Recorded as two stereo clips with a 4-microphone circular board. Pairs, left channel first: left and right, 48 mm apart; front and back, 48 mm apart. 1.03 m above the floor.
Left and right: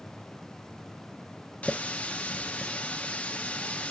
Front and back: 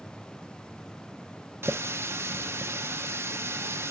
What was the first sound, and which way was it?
A running tap, 150° left.